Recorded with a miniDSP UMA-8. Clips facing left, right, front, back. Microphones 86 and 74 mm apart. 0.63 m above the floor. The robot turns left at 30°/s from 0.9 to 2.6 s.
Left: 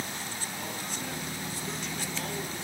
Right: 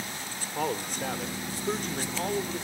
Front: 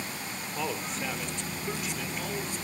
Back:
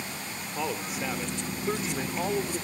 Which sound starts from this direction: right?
A man speaking, at 0.6 s.